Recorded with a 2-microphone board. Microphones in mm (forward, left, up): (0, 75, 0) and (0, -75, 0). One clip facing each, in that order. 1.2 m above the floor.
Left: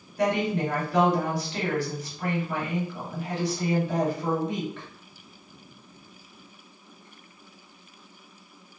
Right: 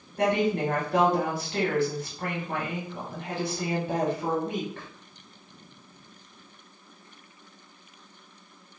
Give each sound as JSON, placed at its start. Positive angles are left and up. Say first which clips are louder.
{"t": 0.2, "sound": "a woman speaking", "louder": "right 1 dB", "side_deg": -55, "distance_m": 1.3}